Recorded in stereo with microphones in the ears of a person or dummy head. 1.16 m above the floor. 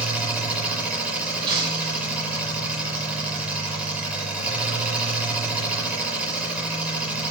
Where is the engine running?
5° right (ahead or behind), 6 m.